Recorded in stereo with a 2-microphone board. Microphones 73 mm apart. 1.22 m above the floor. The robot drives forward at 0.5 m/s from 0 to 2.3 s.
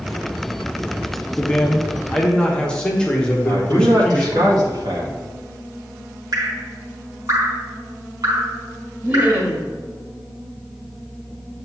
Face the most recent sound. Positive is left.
turn(degrees=-25)  # may be behind; listen again after turning